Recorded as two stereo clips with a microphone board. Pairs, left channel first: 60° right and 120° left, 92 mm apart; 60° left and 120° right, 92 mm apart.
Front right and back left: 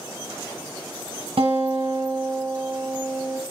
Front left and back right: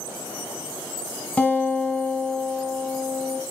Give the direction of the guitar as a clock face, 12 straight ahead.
8 o'clock.